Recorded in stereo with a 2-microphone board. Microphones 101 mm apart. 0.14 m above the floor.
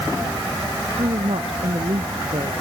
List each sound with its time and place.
1.0 s a woman speaking: 85° right